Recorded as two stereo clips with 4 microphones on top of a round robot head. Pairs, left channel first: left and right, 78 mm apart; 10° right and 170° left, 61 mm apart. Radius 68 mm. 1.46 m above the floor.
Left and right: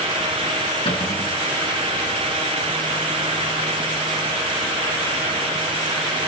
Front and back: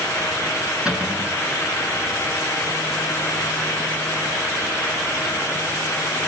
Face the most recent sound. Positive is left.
turn(degrees=100)